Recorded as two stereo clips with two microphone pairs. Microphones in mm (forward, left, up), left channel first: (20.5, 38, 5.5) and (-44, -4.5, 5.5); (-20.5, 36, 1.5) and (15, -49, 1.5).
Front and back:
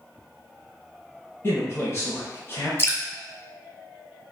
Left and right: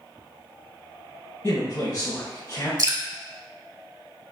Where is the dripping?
25° right, 0.6 m.